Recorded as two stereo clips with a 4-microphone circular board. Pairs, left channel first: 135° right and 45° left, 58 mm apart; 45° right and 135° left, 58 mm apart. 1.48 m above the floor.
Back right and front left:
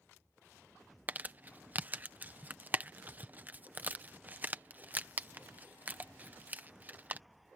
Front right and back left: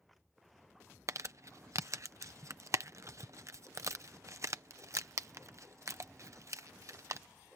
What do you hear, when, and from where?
1.1 s crumpling: 105° left